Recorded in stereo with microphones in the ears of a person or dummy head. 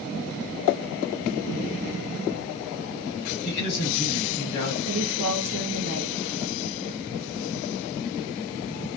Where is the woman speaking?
80° right, 0.9 m.